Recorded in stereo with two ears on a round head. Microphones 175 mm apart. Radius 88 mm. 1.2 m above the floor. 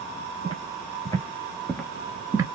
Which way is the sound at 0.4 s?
25° left (ahead or behind).